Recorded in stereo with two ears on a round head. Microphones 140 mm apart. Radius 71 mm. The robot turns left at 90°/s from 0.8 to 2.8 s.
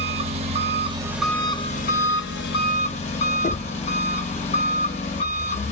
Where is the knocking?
40° left (ahead or behind), 0.5 m.